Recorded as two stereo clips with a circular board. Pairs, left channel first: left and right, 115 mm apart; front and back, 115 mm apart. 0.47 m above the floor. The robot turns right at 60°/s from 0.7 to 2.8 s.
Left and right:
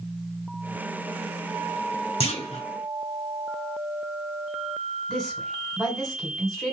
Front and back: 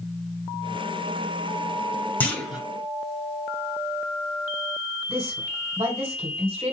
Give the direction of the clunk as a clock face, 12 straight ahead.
10 o'clock.